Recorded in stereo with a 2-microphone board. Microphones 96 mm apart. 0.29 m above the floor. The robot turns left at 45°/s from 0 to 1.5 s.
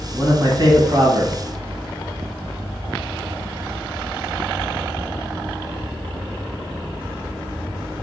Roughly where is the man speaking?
Ahead right.